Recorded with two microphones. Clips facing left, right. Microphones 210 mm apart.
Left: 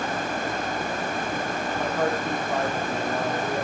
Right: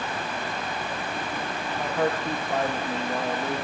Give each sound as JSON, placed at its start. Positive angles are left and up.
{"t": 1.8, "sound": "a man speaking", "side_deg": -10, "distance_m": 4.0}